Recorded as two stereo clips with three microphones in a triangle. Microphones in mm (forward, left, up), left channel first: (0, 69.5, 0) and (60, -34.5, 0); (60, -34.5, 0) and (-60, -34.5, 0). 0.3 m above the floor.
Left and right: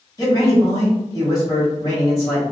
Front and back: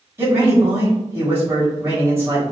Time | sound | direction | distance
0.2 | a man speaking | 135° left | 1.4 m